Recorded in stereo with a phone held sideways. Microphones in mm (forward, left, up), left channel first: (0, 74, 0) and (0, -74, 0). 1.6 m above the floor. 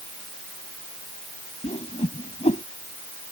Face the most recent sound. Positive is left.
turn(degrees=50)  # may be behind; listen again after turning